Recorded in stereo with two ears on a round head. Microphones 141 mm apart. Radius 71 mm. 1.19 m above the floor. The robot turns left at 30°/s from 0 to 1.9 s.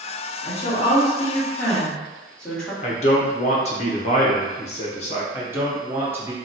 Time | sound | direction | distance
0.4 | a woman speaking | 50° left | 1.3 m
2.8 | a man speaking | 40° left (ahead or behind) | 0.8 m
5.3 | a man speaking | 15° right (ahead or behind) | 0.9 m